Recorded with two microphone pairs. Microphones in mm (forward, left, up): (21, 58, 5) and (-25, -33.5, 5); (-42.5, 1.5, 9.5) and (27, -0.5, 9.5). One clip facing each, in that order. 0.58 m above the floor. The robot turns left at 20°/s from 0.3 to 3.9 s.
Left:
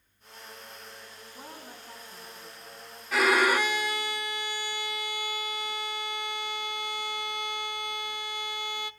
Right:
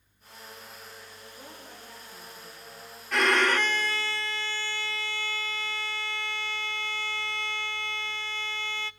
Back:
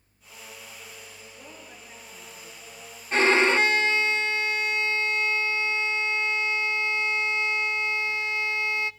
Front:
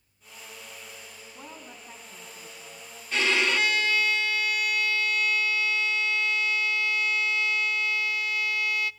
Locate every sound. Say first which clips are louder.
1.4 s a woman speaking: left 3 dB, front 4 dB; 20° left, 6.5 m; by 2.8 s 10° right, 6.5 m
3.1 s a violin: left 1 dB, back 5 dB; 150° left, 0.6 m; by 8.9 s 135° left, 0.6 m